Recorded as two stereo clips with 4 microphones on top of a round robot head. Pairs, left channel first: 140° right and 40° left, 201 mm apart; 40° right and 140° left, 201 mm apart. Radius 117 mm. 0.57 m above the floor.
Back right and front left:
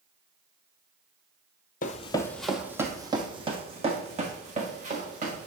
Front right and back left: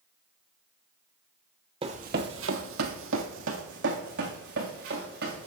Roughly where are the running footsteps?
Behind.